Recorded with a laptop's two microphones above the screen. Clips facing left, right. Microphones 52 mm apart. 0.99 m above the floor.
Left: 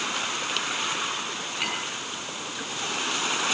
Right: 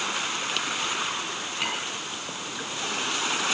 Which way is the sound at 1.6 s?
5° left (ahead or behind).